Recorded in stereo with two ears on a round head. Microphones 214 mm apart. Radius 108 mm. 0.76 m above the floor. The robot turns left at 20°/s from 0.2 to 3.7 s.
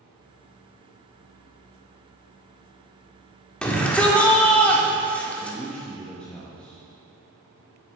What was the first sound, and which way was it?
A shout, 5° left (ahead or behind).